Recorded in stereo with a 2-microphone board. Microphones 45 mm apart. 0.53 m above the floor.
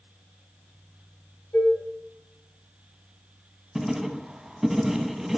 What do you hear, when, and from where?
1.5 s dishes clattering: 55° left (ahead or behind), 3.5 m
3.8 s writing: 5° right (ahead or behind), 0.5 m